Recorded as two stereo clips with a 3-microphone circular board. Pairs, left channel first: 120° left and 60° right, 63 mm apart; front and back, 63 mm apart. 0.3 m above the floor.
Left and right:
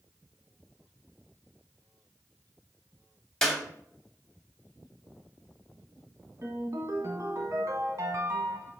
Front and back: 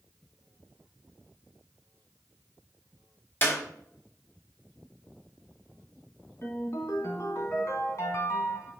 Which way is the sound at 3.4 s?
40° left.